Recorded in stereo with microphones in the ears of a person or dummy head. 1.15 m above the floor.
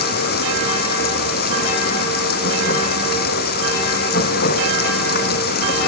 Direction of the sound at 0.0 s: 50° left (ahead or behind).